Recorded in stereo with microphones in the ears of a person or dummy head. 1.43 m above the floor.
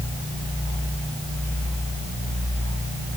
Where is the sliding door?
I don't hear a sliding door.